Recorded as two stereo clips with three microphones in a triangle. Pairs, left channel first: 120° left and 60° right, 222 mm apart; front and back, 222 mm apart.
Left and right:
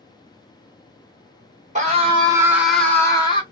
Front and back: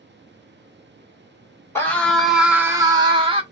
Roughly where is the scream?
Right.